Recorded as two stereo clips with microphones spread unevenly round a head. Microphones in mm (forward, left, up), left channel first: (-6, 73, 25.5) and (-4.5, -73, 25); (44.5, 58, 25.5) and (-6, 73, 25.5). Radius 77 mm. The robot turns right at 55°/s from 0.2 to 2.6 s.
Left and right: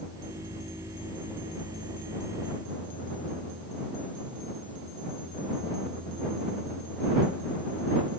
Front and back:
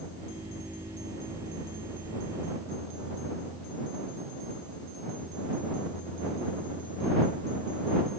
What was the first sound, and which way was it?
Only background noise.